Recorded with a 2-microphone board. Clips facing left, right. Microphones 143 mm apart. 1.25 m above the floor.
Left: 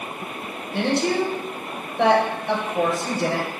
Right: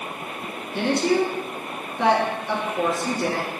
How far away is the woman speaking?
About 1.1 m.